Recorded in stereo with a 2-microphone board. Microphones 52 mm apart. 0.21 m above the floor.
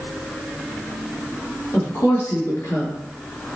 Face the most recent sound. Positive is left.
turn(degrees=60)  # may be behind; listen again after turning